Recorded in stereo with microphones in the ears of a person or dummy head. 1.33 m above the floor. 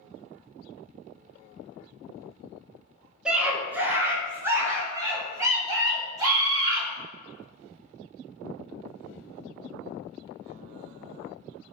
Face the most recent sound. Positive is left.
turn(degrees=-15)  # may be behind; listen again after turning